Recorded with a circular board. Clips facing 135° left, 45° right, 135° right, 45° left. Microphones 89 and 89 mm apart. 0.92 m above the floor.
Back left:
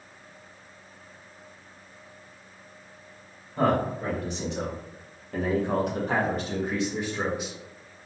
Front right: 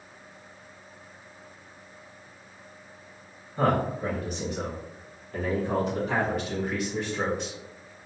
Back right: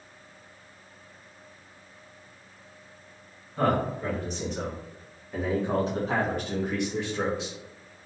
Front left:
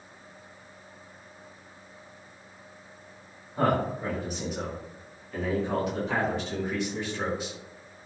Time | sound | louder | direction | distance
3.6 | a man speaking | back left 1 dB, even | 115° left | 1.7 m